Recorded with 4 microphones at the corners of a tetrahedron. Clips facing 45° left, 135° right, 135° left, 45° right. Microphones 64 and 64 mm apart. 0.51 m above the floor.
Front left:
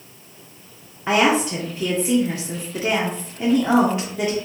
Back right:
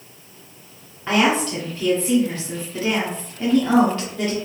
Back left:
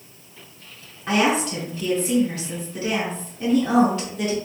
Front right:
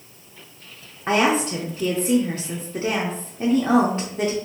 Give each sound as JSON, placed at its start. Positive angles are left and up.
{"t": 1.1, "sound": "a woman speaking", "azimuth_deg": -20, "distance_m": 0.8}